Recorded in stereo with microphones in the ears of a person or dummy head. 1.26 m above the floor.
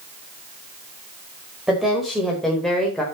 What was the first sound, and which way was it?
A woman speaking, 5° right (ahead or behind).